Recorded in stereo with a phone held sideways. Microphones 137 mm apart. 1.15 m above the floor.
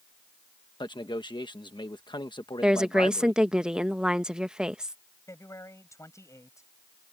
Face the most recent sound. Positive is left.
turn(degrees=20)  # may be behind; listen again after turning